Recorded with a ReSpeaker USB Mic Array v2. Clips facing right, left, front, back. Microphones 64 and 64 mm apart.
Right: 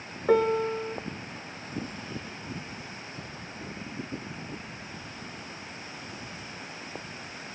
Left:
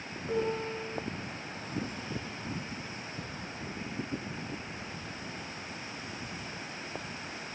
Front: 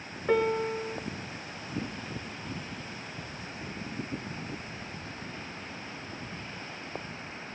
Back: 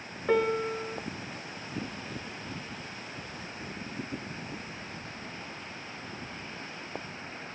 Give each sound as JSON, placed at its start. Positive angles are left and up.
{"t": 0.3, "sound": "a piano", "azimuth_deg": -90, "distance_m": 2.5}